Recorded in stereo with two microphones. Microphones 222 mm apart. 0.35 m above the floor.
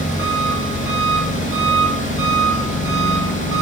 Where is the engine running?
70° right (ahead or behind), 4.5 m.